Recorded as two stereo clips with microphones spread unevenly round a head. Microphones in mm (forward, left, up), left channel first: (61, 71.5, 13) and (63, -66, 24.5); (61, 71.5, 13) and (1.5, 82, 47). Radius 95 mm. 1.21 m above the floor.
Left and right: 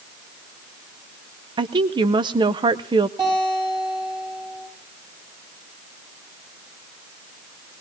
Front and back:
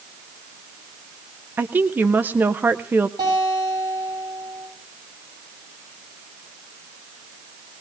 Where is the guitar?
155° right, 10 m.